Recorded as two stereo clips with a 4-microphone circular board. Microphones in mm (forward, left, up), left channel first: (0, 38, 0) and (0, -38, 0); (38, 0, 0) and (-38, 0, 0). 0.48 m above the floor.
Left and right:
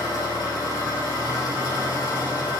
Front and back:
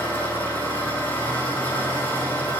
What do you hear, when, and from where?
0.0 s an engine running: 70° left, 7.5 m